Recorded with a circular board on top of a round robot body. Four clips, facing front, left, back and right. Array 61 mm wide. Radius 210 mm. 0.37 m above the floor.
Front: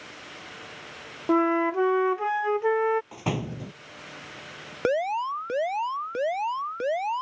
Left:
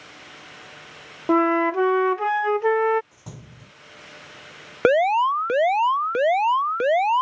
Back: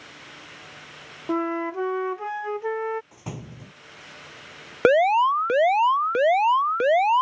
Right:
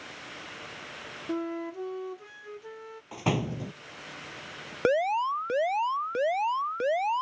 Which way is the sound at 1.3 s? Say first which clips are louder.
Left 15 dB, front 4 dB; 80° left.